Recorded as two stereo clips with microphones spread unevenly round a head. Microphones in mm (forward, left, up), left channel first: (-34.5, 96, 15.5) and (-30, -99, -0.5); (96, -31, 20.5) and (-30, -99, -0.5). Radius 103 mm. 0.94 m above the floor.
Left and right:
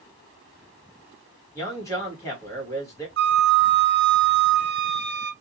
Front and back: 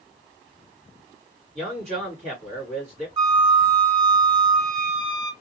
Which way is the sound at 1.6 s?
165° left.